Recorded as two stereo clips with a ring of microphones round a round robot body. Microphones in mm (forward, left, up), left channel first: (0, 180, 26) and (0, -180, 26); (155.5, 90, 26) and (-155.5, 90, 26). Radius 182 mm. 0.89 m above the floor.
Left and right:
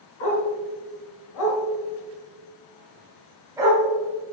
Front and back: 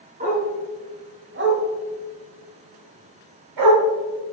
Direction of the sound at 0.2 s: 115° left.